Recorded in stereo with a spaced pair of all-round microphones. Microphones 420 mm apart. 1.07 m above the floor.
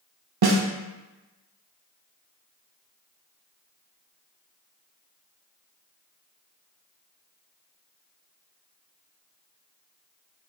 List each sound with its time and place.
0.4 s a snare drum: 65° right (ahead or behind), 0.6 m